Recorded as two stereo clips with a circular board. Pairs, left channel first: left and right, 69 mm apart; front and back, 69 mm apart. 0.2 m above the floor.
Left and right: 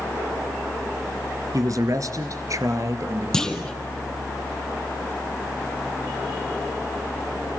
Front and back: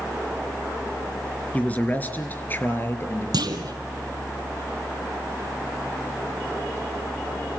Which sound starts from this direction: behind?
A clunk, at 3.3 s.